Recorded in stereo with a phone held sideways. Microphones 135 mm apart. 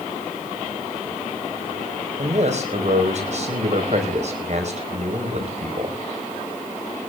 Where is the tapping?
No tapping in this recording.